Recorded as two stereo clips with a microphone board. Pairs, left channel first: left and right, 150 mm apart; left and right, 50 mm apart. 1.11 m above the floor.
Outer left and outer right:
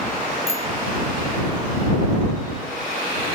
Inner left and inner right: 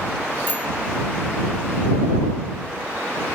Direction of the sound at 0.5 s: 45° left (ahead or behind).